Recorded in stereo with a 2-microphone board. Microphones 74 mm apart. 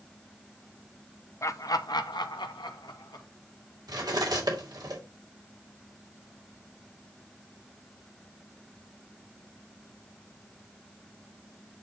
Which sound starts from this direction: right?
Cutlery clinking, at 3.9 s.